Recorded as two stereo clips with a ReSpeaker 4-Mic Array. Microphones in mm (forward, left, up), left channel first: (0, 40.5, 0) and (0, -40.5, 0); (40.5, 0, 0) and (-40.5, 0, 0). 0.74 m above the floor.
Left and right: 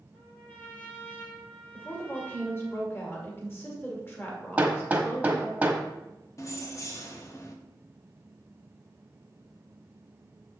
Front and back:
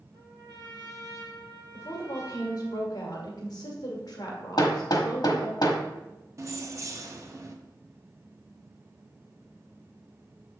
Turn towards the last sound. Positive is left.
turn(degrees=135)